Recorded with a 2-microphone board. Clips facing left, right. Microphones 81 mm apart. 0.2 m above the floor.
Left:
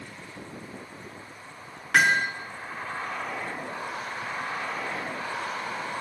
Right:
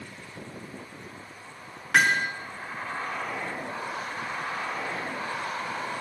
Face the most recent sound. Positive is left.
turn(degrees=5)  # may be behind; listen again after turning